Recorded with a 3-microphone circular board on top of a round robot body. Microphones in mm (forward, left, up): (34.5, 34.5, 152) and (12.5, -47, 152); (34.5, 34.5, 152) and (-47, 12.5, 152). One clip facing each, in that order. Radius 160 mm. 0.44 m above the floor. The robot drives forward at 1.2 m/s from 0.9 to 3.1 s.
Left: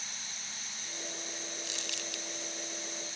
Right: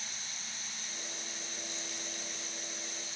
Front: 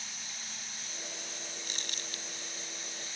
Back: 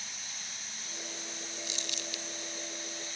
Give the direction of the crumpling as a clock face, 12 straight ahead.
10 o'clock.